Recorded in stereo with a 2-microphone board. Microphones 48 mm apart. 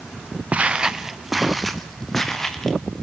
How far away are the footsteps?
About 1.0 m.